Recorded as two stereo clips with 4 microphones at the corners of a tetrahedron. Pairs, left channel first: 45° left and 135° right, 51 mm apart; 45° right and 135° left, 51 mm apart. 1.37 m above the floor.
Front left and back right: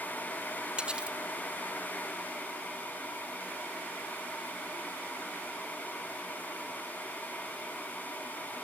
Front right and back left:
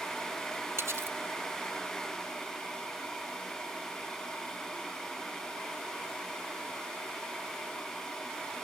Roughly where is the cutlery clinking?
Behind left.